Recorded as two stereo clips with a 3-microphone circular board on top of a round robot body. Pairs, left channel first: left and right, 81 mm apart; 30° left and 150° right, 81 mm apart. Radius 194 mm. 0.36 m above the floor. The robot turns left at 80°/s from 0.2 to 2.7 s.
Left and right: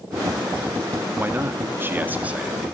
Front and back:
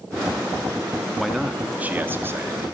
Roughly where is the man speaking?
Ahead right.